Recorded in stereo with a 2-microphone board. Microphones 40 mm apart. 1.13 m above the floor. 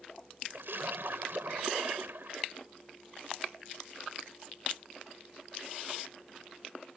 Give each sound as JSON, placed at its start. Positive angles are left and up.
{"t": 0.5, "sound": "a splash", "side_deg": -70}